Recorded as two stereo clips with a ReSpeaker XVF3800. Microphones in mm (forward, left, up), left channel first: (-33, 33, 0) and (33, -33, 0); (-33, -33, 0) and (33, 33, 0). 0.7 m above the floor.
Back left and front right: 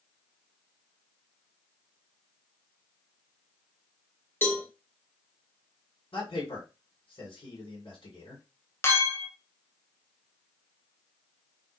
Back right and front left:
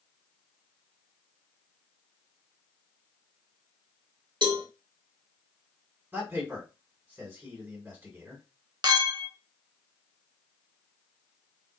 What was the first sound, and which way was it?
A cowbell, 70° left.